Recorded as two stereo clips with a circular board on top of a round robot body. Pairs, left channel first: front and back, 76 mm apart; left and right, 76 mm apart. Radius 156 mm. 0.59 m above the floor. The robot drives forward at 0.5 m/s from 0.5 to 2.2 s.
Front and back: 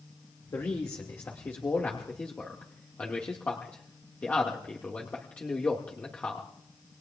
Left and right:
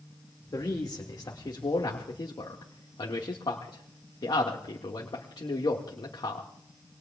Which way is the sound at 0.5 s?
50° left.